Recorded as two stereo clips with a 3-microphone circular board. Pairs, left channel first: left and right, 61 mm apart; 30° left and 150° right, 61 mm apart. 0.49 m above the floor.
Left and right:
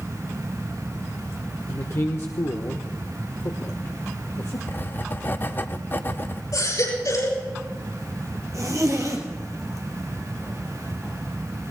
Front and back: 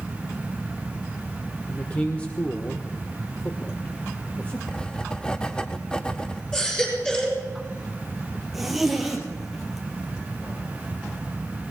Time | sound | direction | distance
1.7 | a man speaking | 90° left | 1.0 m
4.7 | writing | 95° left | 0.6 m
6.5 | a baby crying | 105° left | 6 m
8.5 | a zipper | 65° right | 2 m